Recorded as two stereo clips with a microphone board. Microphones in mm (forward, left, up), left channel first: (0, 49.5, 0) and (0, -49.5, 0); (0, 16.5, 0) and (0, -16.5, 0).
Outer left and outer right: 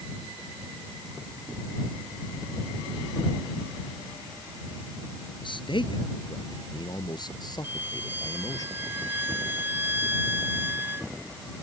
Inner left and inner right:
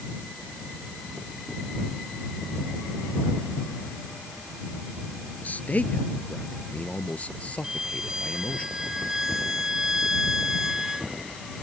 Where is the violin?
20° right (ahead or behind).